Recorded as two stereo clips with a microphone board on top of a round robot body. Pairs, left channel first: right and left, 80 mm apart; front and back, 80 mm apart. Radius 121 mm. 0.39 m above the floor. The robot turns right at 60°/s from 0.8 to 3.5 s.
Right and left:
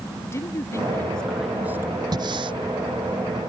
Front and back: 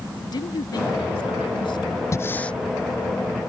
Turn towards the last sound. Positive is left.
turn(degrees=135)